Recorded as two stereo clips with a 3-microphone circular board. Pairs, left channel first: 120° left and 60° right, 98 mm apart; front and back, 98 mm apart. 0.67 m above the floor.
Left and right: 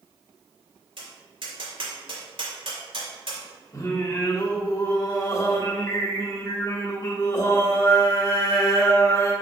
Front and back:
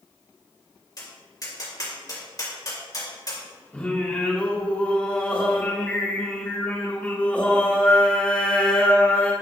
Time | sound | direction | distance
1.0 | tapping | 45° right | 3.5 m
3.7 | singing | 70° left | 1.7 m